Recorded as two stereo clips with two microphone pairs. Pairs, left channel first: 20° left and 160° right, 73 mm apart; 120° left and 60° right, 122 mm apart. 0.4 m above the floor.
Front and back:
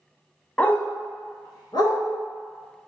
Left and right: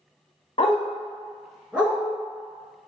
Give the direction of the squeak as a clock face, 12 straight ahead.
No squeak in this recording.